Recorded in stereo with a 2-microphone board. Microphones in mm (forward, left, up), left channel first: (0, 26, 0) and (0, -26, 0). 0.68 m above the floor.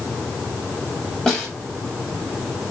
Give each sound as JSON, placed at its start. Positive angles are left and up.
{"t": 1.3, "sound": "a snare drum", "side_deg": 10, "distance_m": 4.0}